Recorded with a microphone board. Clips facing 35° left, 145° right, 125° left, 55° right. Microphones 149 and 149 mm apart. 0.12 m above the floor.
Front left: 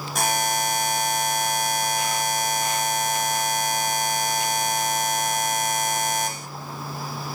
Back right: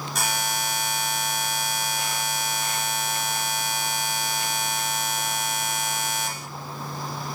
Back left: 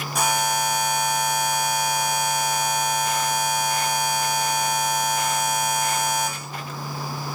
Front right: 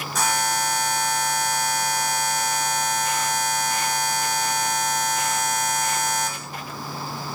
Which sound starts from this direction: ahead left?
A buzzer, at 0.1 s.